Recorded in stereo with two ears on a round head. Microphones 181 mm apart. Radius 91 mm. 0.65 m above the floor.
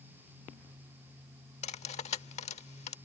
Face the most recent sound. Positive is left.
turn(degrees=35)  # may be behind; listen again after turning